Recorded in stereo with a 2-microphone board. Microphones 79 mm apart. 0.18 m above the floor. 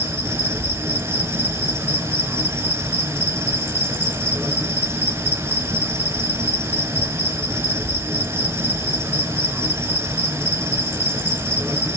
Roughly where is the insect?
Right.